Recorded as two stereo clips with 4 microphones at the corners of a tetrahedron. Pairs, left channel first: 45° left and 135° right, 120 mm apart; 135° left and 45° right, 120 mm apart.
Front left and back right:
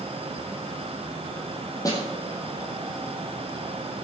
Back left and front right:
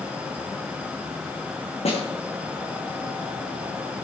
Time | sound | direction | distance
1.9 | a snare drum | 105° left | 4 m